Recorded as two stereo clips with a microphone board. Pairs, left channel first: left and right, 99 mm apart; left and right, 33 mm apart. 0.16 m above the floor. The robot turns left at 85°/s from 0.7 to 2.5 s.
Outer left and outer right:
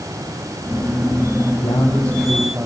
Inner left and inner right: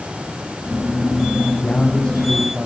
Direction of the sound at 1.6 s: 55° left.